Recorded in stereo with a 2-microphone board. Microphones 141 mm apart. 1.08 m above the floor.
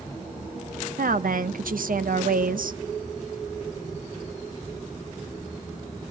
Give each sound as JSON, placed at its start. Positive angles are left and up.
{"t": 1.0, "sound": "a woman speaking", "side_deg": -80, "distance_m": 0.6}